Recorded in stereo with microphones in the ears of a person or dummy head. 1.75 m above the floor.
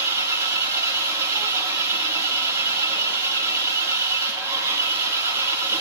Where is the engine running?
20° right (ahead or behind), 2 m.